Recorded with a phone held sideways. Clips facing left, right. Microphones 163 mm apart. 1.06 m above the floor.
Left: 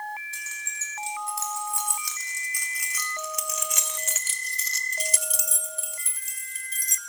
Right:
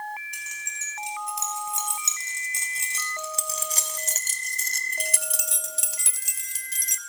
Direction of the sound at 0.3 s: 15° right (ahead or behind).